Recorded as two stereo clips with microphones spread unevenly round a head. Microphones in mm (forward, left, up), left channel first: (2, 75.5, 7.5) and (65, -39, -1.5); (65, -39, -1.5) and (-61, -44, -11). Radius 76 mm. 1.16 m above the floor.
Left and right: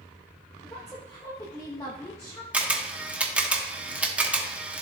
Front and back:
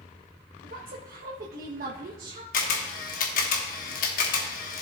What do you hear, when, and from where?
0.6 s a woman speaking: 170° right, 1.0 m
2.5 s a camera shutter: 20° left, 1.3 m